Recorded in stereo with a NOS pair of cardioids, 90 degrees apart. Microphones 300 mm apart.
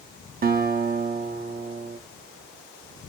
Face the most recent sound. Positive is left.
turn(degrees=-30)